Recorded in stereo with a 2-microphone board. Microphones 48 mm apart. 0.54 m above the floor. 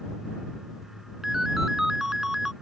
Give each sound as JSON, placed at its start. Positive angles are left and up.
{"t": 1.2, "sound": "a ringtone", "side_deg": -10}